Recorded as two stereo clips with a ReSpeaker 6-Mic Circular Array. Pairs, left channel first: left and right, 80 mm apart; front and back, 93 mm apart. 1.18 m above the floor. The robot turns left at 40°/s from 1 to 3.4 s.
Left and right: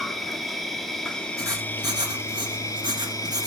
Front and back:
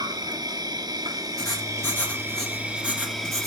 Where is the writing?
45° right, 2.5 m; by 3.5 s 125° right, 2.5 m.